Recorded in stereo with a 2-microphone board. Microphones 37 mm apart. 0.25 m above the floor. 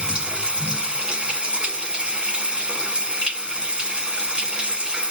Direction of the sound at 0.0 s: 25° right (ahead or behind).